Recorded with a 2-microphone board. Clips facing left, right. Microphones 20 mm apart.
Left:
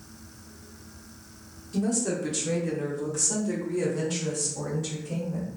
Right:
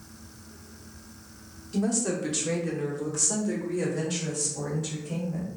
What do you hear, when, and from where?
1.7 s a woman speaking: 20° right (ahead or behind), 0.9 m; by 5.5 s 5° right (ahead or behind), 2 m